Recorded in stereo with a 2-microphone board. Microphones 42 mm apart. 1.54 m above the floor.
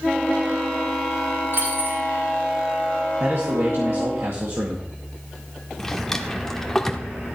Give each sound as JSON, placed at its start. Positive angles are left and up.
{"t": 1.5, "sound": "a dropped coin", "side_deg": -60, "distance_m": 5.5}
{"t": 3.2, "sound": "a man speaking", "side_deg": -75, "distance_m": 2.0}
{"t": 5.8, "sound": "a drawer", "side_deg": 10, "distance_m": 1.1}